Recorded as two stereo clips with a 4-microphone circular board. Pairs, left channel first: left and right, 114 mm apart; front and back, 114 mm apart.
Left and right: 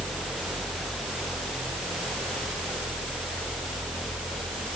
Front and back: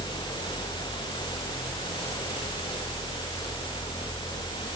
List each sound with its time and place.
Only background noise.